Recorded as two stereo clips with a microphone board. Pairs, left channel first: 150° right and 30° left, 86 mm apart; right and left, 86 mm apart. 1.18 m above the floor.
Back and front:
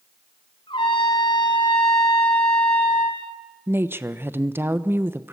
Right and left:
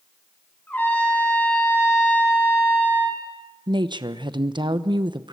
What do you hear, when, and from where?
0.7 s a trumpet: 160° right, 5 m
3.7 s a woman speaking: 90° left, 1.0 m